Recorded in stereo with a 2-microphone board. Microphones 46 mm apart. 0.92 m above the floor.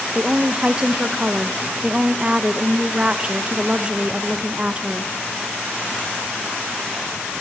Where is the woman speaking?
25° right (ahead or behind), 0.7 m.